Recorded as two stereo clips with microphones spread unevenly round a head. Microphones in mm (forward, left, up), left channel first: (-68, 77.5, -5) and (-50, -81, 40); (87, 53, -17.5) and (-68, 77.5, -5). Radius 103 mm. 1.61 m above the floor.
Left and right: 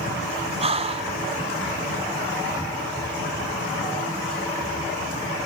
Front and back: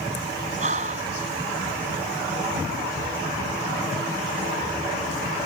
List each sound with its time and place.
0.6 s breathing: 135° right